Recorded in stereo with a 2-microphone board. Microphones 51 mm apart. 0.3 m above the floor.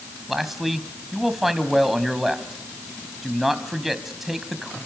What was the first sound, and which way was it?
A man speaking, 5° right (ahead or behind).